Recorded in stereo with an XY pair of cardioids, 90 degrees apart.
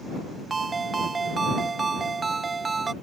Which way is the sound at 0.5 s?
30° right.